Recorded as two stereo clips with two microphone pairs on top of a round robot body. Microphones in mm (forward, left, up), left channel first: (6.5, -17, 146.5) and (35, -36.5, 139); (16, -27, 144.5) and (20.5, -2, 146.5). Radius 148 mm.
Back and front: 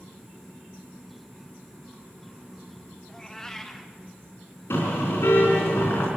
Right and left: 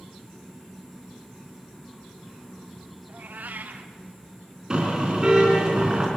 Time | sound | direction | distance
3.1 | a cat meowing | 70° left | 0.8 m
4.7 | a car horn | 150° left | 4 m